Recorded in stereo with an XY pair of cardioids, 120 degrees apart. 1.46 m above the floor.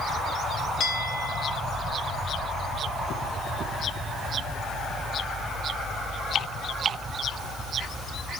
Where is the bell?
60° left, 4.5 m.